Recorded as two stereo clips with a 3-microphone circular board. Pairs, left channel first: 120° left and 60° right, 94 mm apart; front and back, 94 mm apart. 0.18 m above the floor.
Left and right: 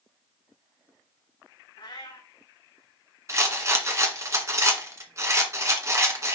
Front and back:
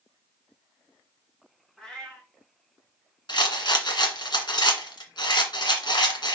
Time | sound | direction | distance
1.8 | a cat meowing | 85° left | 5.5 m
3.3 | a rattle | 10° right | 1.7 m